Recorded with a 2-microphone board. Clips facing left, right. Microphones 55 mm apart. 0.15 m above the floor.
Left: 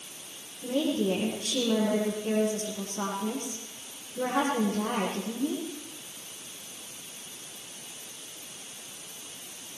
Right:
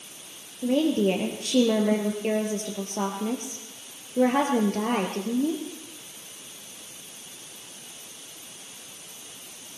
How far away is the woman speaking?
About 4 m.